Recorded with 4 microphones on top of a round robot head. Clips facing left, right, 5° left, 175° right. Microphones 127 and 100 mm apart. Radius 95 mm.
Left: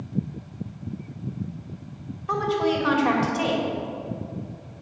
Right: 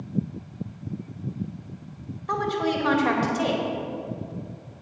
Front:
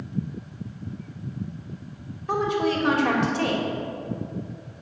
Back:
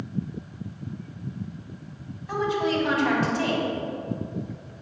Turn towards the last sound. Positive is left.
turn(degrees=5)